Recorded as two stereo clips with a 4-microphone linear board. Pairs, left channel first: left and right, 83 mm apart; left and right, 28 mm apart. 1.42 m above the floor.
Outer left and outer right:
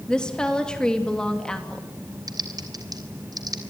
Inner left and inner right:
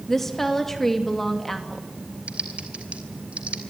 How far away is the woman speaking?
About 2.5 m.